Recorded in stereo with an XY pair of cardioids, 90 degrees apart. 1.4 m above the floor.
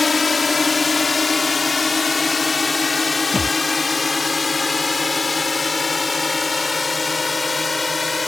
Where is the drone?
30° left; by 8.3 s 25° left.